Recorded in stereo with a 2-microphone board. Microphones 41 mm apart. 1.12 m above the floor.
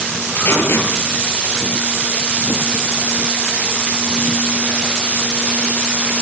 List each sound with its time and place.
0.4 s tape being pulled: 70° left (ahead or behind), 8.5 m